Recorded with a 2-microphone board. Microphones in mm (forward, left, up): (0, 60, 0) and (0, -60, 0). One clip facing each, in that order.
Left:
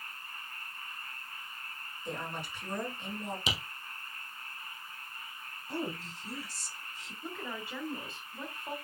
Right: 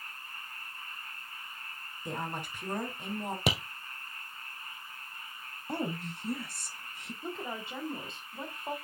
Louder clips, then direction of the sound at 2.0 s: Right 2 dB; 50° right (ahead or behind).